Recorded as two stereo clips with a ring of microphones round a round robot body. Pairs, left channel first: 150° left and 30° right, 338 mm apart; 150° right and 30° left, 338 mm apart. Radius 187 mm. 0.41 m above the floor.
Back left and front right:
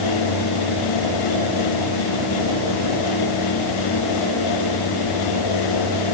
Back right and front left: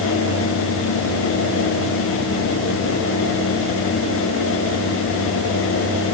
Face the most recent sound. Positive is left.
No sound to turn to.